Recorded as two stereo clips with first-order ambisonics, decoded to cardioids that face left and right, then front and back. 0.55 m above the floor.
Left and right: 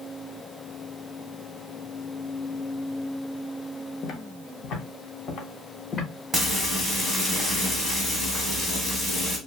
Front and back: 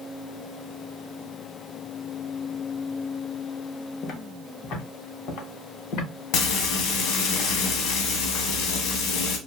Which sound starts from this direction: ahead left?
Footsteps, at 4.0 s.